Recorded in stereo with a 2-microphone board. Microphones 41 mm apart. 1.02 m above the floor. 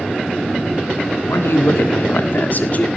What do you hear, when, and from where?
1.3 s a man speaking: 85° left, 2.0 m; by 2.9 s 35° left (ahead or behind), 2.0 m